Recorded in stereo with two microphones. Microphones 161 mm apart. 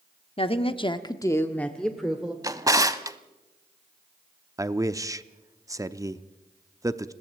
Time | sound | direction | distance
0.4 | a woman speaking | 35° left (ahead or behind) | 1.1 m
2.4 | a drawer | 20° right (ahead or behind) | 0.8 m
4.6 | a man speaking | 20° right (ahead or behind) | 0.7 m